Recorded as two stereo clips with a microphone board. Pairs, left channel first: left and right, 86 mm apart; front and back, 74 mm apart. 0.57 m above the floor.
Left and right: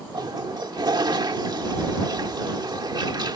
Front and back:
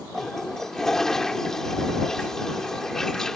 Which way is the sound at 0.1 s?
85° right.